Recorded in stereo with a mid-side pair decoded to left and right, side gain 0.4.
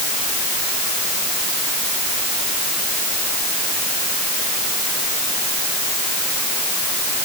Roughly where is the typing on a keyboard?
I don't hear typing on a keyboard.